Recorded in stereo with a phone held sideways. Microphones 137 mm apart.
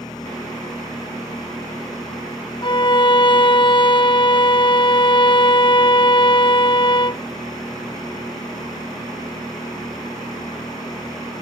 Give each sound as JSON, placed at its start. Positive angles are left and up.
{"t": 0.0, "sound": "a machine running", "side_deg": 30}
{"t": 2.6, "sound": "a violin", "side_deg": 40}